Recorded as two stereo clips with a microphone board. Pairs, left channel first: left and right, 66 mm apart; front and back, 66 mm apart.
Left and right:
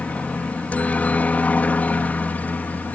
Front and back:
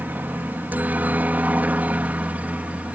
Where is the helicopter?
140° left; by 3.0 s 130° left.